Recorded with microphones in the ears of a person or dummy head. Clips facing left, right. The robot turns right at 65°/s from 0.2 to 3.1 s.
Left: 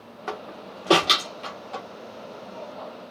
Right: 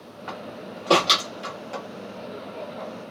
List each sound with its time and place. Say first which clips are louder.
0.3 s a door slam: left 1 dB; 55° left (ahead or behind), 1.2 m; by 1.9 s 45° right (ahead or behind), 1.2 m